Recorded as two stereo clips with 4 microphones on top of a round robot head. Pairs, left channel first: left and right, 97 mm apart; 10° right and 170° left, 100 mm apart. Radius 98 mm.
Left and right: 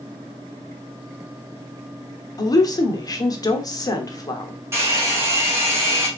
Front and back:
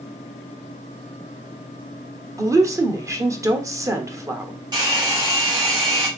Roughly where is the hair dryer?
Behind right.